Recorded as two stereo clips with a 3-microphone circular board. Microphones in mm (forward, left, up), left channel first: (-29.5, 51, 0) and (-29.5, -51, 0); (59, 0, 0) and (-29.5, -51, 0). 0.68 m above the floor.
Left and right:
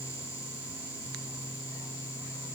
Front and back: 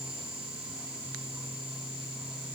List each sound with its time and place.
Only background noise.